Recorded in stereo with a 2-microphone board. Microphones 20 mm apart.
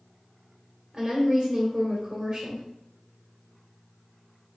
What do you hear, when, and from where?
0.9 s a woman speaking: 40° right (ahead or behind), 1.5 m